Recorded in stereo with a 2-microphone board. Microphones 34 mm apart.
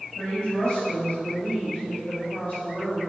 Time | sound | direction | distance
0.2 | a woman speaking | 40° left (ahead or behind) | 2.0 m